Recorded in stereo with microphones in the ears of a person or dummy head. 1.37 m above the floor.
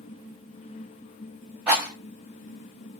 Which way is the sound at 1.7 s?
5° right (ahead or behind).